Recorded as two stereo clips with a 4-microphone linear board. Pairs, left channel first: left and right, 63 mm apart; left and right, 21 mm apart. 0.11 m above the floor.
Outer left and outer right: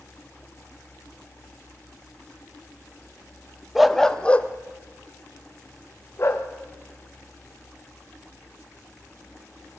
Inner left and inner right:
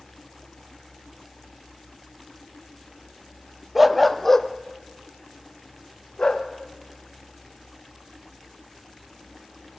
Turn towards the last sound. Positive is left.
turn(degrees=45)  # may be behind; listen again after turning